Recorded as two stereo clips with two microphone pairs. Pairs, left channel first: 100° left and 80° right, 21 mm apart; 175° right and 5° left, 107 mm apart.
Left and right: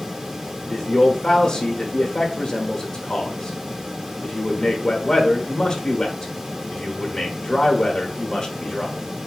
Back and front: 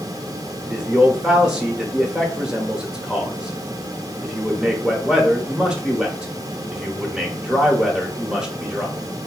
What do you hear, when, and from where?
0.7 s a man speaking: 80° left, 0.8 m